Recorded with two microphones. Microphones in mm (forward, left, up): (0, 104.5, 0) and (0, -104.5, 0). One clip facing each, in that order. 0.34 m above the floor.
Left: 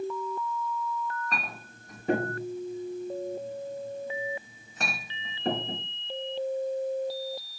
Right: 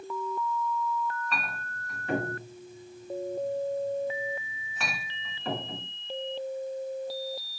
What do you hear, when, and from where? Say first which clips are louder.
1.3 s a clink: even; 40° left (ahead or behind), 2.5 m